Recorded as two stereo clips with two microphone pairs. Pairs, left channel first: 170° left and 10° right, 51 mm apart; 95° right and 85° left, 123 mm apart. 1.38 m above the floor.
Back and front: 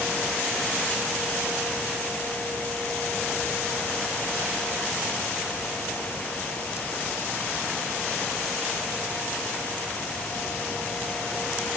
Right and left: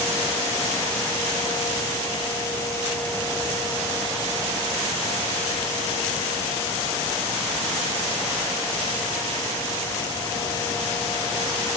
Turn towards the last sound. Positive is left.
No sound to turn to.